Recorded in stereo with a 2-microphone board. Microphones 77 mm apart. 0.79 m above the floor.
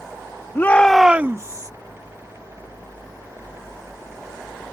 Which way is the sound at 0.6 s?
30° left (ahead or behind).